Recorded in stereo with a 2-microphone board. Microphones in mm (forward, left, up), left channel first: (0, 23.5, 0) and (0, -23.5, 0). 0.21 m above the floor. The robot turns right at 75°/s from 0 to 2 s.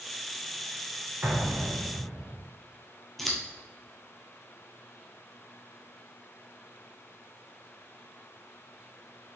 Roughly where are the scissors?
Centre.